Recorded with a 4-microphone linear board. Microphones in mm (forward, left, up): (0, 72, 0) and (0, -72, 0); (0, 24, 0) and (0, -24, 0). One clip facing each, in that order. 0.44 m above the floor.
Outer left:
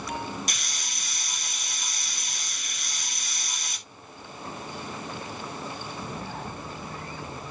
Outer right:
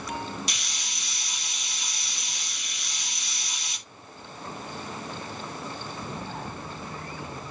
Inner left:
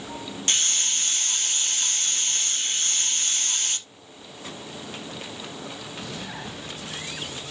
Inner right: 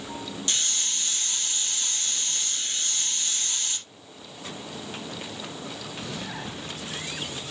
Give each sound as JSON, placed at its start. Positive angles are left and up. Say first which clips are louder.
{"t": 0.5, "sound": "a hiss", "louder": "outer left 1 dB, inner left 5 dB", "side_deg": 45, "distance_m": 2.0}